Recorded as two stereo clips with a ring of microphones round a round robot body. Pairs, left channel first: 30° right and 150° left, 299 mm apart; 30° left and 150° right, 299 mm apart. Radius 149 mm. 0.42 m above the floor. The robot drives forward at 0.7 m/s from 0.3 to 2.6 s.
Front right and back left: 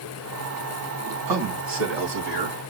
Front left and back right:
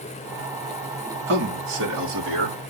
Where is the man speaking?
160° left, 2.5 m; by 2.6 s 165° left, 3.5 m.